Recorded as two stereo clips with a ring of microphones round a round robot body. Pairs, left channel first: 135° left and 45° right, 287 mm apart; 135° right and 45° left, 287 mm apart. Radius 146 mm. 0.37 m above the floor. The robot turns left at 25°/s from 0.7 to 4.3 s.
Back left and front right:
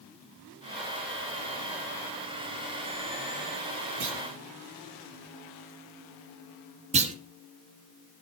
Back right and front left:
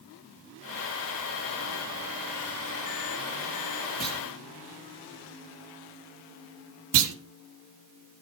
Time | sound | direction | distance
4.0 | a clunk | 15° right | 4 m
6.9 | a clunk | 25° left | 1.4 m